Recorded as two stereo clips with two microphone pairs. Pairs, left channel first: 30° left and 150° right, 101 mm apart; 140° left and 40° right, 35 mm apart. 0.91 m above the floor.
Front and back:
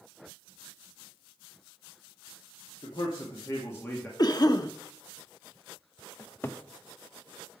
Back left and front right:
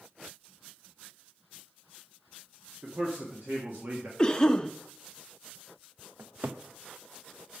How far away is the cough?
About 1.0 m.